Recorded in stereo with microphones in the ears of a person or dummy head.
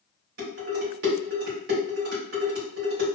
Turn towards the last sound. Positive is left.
turn(degrees=-60)  # may be behind; listen again after turning